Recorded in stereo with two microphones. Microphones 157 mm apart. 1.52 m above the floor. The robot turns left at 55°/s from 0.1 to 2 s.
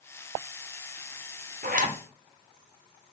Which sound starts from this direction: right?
A zipper, at 1.6 s.